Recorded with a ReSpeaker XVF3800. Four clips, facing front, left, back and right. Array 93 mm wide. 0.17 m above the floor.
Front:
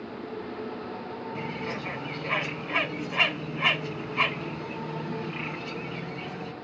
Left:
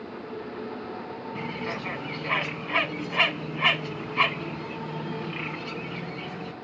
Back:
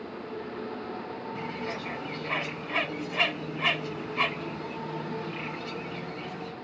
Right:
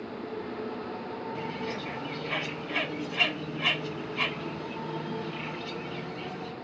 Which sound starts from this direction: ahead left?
A bird, at 1.4 s.